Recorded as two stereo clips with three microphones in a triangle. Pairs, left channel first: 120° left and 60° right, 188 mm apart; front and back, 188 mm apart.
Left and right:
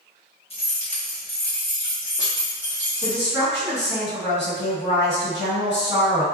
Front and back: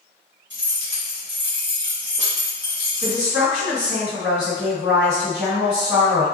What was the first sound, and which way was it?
Keys jangling, straight behind.